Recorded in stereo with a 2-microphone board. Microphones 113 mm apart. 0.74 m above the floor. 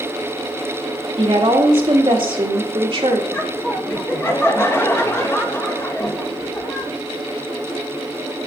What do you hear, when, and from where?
1.2 s a woman speaking: 50° right (ahead or behind), 2.0 m
3.3 s laughter: 25° left (ahead or behind), 1.9 m